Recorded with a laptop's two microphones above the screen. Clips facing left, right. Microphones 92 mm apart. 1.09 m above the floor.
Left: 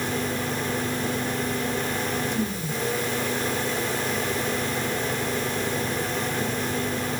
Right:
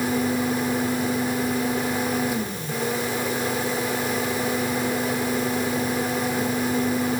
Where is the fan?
10° right (ahead or behind), 1.4 m.